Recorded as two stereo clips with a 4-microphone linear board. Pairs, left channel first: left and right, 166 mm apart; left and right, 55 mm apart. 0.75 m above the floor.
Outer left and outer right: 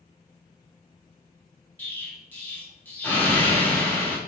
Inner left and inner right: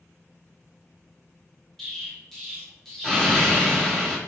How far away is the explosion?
About 1.0 m.